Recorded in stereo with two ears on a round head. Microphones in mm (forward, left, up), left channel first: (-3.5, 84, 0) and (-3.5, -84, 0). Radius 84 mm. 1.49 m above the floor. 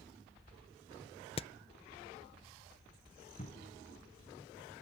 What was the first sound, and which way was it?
Hammering, 30° left (ahead or behind).